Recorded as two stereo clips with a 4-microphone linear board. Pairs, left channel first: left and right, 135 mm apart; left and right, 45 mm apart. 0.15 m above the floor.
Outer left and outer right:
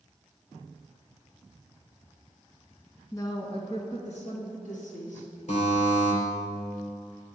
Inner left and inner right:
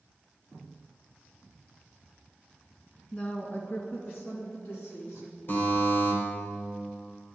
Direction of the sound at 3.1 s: 25° left (ahead or behind).